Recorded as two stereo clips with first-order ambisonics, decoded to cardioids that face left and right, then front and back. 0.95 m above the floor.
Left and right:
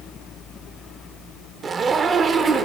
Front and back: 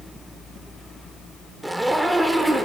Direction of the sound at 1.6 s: 105° right.